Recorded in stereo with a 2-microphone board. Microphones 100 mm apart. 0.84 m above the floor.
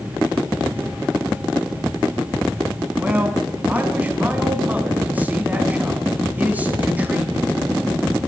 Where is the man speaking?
20° right (ahead or behind), 6.5 m.